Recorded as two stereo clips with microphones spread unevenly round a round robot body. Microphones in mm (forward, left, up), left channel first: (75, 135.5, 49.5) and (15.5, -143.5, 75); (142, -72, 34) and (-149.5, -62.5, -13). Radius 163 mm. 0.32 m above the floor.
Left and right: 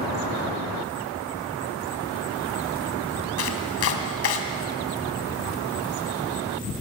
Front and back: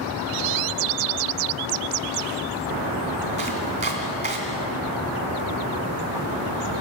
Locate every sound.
3.4 s chopping: 110° left, 2.5 m